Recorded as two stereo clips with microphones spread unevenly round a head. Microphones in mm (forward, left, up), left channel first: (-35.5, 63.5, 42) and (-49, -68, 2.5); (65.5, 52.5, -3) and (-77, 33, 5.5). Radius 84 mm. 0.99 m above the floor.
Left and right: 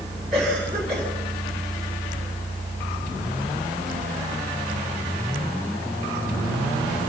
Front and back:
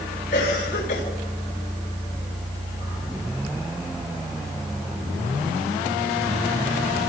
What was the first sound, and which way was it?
A cough, 5° right.